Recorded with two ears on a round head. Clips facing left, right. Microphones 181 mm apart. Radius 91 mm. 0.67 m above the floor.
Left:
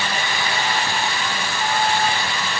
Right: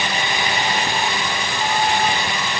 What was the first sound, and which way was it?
Only background noise.